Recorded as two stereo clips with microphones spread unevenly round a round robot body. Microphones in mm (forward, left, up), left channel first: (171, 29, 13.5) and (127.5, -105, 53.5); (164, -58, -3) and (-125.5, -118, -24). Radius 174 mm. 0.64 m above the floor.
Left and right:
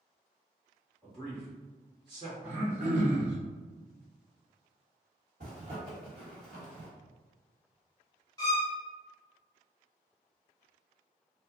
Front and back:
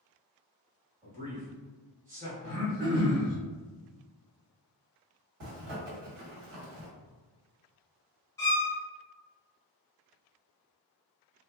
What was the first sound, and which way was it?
A man speaking, 170° right.